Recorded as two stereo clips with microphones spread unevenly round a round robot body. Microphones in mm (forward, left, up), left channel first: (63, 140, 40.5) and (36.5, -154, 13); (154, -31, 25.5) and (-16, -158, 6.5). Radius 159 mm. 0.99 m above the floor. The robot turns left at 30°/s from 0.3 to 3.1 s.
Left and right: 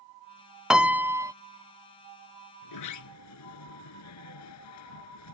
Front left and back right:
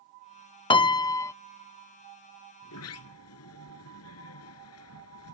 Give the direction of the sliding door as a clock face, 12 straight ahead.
10 o'clock.